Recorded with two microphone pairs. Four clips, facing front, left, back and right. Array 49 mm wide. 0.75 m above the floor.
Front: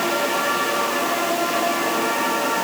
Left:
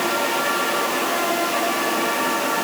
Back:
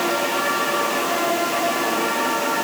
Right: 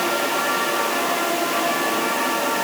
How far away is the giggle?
I don't hear a giggle.